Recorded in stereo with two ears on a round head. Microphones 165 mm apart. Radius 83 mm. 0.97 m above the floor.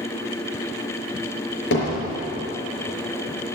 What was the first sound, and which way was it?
Hammering, 75° left (ahead or behind).